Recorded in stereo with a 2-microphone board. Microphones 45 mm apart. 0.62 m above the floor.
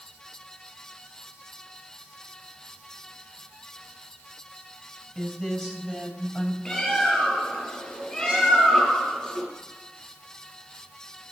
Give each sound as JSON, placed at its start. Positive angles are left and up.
{"t": 5.2, "sound": "a woman speaking", "side_deg": 20, "distance_m": 4.5}
{"t": 6.7, "sound": "a bird", "side_deg": 20, "distance_m": 7.0}